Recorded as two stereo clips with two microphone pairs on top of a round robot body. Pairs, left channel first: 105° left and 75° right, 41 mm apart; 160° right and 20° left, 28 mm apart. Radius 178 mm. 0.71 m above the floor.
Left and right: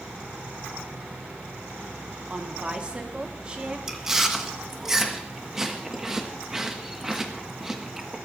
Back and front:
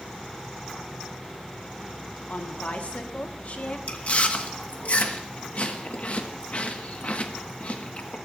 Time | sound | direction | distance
2.3 | a woman speaking | 140° right | 1.7 m
3.9 | chewing | 150° right | 1.6 m